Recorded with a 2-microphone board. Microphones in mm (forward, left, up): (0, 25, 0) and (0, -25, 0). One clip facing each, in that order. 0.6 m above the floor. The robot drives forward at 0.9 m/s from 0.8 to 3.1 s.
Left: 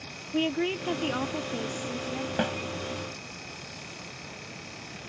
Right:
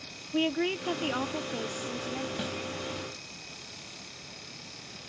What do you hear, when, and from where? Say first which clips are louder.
0.3 s a woman speaking: left 1 dB; centre (ahead or behind)
2.4 s a snare drum: left 7 dB; 45° left (ahead or behind)